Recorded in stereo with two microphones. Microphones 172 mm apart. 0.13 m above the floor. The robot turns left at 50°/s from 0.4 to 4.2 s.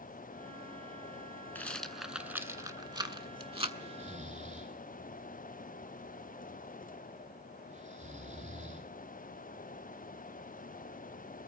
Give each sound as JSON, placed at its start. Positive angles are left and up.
{"t": 1.6, "sound": "a rattle", "side_deg": 10, "distance_m": 0.6}
{"t": 3.8, "sound": "snoring", "side_deg": -35, "distance_m": 1.2}